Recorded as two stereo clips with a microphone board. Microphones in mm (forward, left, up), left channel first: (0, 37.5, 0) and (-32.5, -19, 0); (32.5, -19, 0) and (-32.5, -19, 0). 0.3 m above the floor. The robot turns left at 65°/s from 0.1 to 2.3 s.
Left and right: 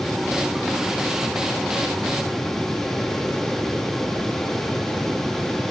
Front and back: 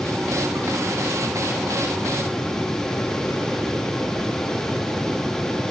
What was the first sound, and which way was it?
Only background noise.